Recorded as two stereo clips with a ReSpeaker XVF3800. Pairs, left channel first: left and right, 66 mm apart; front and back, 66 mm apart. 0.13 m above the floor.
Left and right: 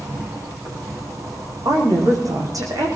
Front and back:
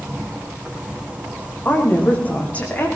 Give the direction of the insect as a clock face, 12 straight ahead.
4 o'clock.